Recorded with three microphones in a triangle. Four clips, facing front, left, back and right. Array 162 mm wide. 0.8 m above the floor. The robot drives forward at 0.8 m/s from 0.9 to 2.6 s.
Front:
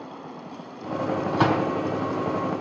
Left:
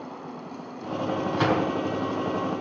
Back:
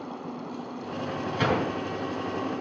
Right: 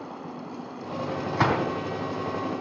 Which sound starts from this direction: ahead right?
A gunshot, at 1.3 s.